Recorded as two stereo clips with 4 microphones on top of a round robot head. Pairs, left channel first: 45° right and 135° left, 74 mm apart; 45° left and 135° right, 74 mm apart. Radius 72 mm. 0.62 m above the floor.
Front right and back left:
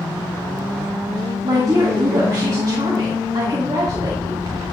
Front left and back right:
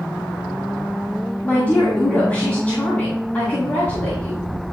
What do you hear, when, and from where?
1.4 s a woman speaking: 115° left, 1.8 m